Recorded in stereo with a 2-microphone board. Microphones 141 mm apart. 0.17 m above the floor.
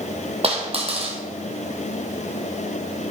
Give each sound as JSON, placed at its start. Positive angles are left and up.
{"t": 0.4, "sound": "a dropped coin", "side_deg": -45, "distance_m": 1.9}